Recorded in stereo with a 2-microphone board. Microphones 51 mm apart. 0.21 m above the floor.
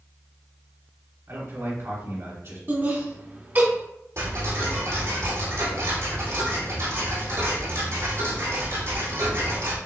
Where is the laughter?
40° right (ahead or behind), 1.5 m.